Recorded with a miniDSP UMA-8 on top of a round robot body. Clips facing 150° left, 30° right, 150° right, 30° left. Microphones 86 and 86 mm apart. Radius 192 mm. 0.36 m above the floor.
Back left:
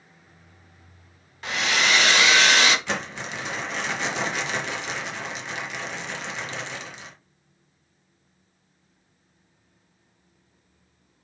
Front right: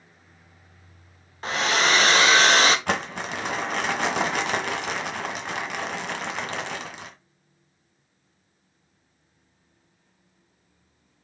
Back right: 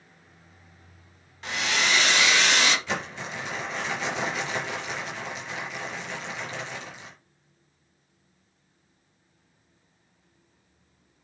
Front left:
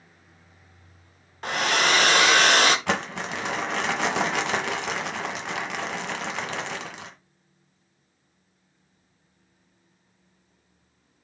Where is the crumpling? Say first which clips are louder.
Front right 3 dB, front left 5 dB; 10° left, 1.6 m.